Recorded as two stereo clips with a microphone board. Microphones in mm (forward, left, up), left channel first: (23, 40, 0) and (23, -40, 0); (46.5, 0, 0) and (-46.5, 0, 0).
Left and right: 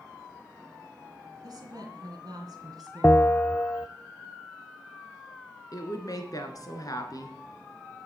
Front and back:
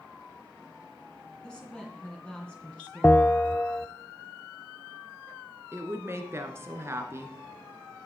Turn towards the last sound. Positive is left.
turn(degrees=120)